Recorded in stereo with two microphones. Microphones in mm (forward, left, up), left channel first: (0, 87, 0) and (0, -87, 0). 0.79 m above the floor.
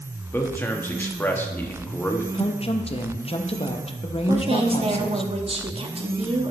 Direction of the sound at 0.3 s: 10° left (ahead or behind).